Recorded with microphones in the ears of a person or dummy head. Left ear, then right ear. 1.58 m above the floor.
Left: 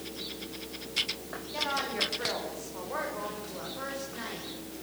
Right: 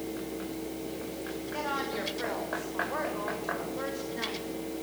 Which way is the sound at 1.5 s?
5° right (ahead or behind).